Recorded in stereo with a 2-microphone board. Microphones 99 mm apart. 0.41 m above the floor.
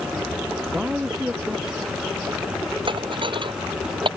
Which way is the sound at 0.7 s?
5° right (ahead or behind).